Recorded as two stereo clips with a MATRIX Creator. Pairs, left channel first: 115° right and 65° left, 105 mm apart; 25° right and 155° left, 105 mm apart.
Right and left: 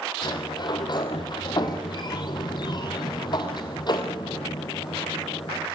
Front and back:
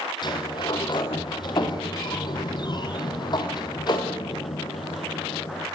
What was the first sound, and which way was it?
A sliding door, 70° right.